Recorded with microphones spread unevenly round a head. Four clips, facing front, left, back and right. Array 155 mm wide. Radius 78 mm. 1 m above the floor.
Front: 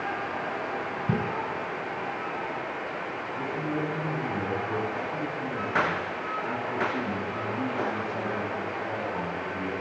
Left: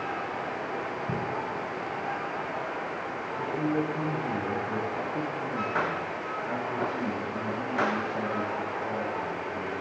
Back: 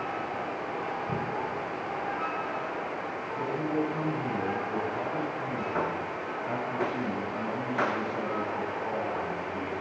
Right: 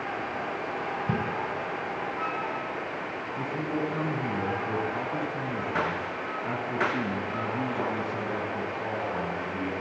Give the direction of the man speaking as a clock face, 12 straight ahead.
3 o'clock.